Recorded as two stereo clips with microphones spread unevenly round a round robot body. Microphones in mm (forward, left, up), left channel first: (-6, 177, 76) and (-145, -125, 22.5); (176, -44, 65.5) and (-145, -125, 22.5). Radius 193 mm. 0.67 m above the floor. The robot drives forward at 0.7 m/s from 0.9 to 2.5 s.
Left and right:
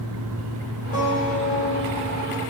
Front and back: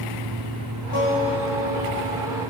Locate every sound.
0.9 s a guitar: 5° left, 3.5 m; by 2.4 s 10° left, 2.5 m